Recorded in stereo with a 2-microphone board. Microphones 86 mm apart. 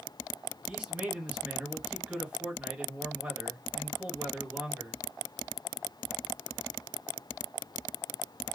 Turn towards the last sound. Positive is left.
turn(degrees=-15)  # may be behind; listen again after turning